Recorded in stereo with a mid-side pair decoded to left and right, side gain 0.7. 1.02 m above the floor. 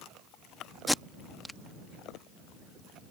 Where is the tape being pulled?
5° left.